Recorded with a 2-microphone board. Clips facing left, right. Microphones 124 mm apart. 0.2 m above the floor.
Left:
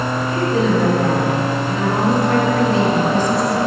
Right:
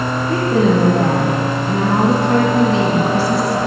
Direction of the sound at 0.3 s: 60° right (ahead or behind).